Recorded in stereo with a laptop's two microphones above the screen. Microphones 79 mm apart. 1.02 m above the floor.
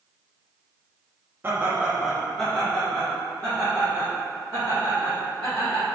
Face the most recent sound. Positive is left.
turn(degrees=45)  # may be behind; listen again after turning